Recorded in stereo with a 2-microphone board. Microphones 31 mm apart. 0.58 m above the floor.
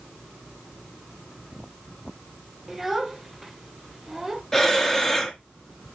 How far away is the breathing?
About 1.3 m.